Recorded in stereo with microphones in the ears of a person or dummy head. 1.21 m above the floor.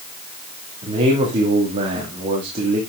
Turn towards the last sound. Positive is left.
turn(degrees=-35)  # may be behind; listen again after turning